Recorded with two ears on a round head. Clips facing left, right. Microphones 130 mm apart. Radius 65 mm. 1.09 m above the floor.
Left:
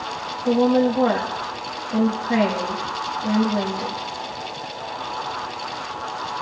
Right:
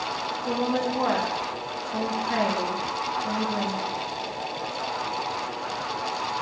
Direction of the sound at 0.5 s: 40° left (ahead or behind).